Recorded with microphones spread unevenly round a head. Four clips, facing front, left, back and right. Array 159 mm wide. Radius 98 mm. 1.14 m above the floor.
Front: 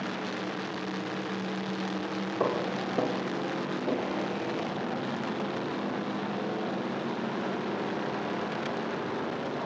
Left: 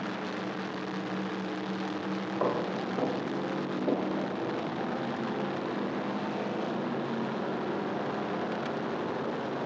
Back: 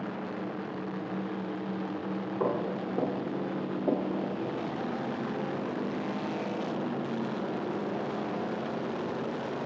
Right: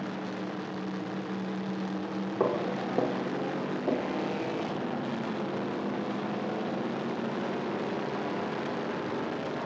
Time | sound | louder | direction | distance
2.4 | footsteps | right 2 dB, front 1 dB | 95° right | 2 m